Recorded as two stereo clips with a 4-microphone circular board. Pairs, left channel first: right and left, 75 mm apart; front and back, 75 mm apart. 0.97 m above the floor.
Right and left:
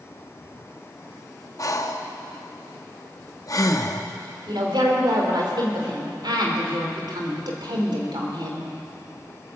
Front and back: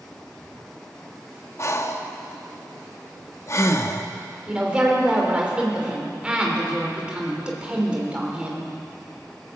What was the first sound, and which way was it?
Breathing, 50° right.